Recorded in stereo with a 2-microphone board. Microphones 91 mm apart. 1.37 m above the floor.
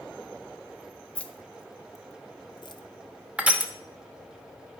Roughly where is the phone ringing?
I don't hear a phone ringing.